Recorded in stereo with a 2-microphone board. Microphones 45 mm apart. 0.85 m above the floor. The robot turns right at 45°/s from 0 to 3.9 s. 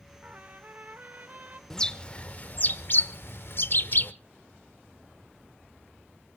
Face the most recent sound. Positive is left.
turn(degrees=50)  # may be behind; listen again after turning